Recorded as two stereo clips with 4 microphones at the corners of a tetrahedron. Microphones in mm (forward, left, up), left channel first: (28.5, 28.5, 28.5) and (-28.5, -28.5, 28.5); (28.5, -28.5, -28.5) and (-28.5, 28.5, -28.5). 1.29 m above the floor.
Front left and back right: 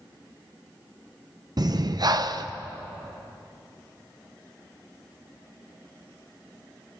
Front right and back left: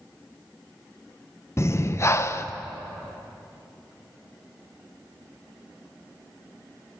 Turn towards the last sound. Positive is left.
turn(degrees=-100)